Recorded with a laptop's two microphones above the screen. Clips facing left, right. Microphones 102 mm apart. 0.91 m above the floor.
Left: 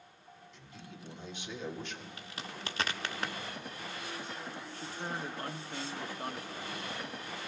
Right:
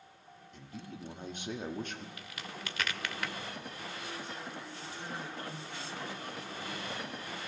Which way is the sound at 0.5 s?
50° right (ahead or behind).